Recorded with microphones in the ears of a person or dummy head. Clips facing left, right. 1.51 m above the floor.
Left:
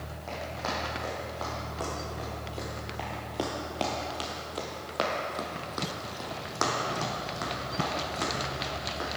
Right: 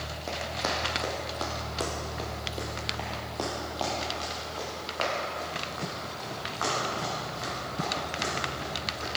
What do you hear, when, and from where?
0.3 s running footsteps: 45° right (ahead or behind), 3 m; by 9.1 s 65° left (ahead or behind), 5 m